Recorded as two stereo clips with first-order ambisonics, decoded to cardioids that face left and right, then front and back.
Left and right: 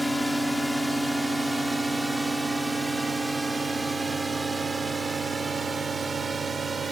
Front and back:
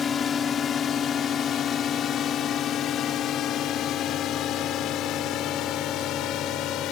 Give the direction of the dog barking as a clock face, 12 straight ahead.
No dog barking in this recording.